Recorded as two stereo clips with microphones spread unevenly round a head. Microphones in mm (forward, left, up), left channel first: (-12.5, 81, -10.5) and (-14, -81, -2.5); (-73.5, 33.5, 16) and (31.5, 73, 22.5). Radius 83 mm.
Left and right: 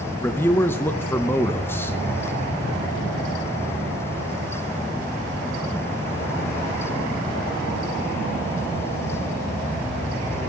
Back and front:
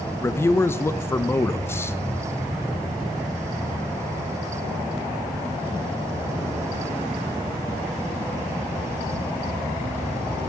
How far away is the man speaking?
About 0.6 m.